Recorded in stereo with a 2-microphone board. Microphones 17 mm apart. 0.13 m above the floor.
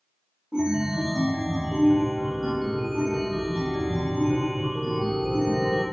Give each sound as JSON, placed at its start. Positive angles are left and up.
{"t": 0.5, "sound": "a chime", "side_deg": -75, "distance_m": 1.2}